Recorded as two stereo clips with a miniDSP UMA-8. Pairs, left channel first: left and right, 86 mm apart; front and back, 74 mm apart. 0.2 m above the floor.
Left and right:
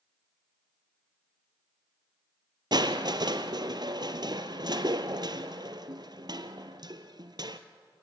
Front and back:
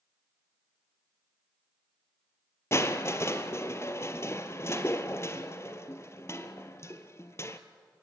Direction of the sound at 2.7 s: 55° right.